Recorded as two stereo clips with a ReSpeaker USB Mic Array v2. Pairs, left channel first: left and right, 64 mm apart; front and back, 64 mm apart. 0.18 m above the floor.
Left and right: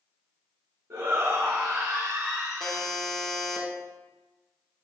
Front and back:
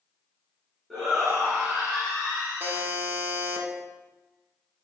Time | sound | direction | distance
0.9 | a shout | 95° right | 1.7 m
2.6 | a buzzer | 170° left | 1.0 m